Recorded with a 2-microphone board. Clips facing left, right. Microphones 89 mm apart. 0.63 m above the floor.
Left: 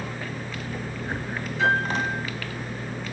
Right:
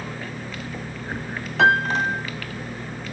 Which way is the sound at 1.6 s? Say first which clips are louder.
Right 5 dB; 75° right (ahead or behind).